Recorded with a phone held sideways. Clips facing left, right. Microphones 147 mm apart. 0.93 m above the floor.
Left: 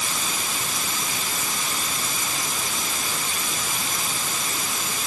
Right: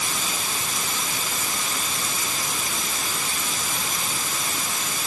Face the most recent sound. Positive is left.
No sound to turn to.